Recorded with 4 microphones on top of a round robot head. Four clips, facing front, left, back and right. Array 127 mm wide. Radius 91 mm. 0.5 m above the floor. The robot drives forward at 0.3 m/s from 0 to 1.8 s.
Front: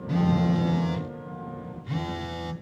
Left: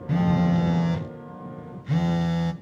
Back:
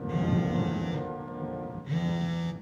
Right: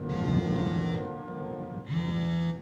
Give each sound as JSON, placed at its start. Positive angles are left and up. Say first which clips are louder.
{"t": 0.1, "sound": "a phone buzzing", "louder": "left 7 dB, front 5 dB", "azimuth_deg": 70, "distance_m": 1.6}